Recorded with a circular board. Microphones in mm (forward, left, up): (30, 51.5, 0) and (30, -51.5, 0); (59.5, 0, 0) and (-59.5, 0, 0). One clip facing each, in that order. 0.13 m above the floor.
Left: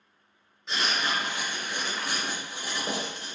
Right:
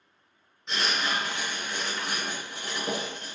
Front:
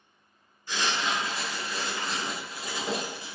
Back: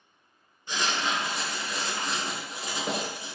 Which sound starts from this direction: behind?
Writing, at 0.7 s.